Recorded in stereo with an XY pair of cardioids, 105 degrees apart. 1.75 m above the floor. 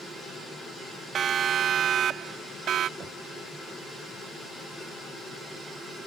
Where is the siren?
55° right; by 2.9 s 70° right.